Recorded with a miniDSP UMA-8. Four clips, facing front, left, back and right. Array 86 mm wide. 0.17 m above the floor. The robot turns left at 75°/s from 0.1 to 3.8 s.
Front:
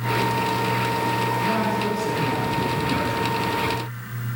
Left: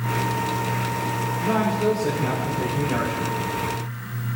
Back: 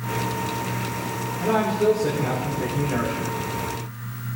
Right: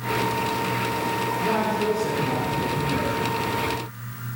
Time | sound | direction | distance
1.4 | a man speaking | 160° right | 4.5 m